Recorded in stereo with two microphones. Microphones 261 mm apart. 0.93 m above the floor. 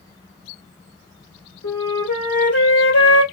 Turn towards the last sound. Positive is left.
turn(degrees=70)  # may be behind; listen again after turning